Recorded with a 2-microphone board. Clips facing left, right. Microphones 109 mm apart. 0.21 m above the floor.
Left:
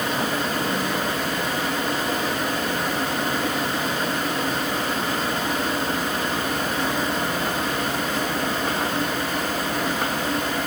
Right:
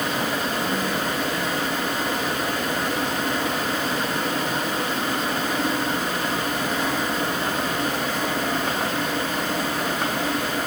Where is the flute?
No flute in this recording.